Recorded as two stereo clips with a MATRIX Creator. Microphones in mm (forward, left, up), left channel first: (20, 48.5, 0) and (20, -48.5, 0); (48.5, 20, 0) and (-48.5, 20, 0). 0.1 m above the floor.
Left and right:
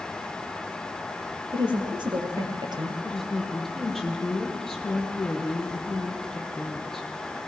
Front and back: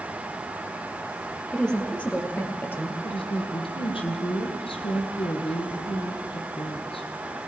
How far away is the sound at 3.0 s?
About 3 m.